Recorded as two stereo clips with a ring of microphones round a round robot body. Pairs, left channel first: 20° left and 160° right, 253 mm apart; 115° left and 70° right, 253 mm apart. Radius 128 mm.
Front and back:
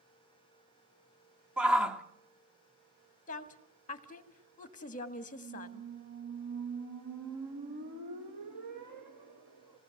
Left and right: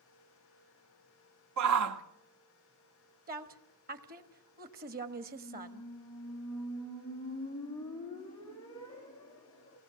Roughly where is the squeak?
Behind.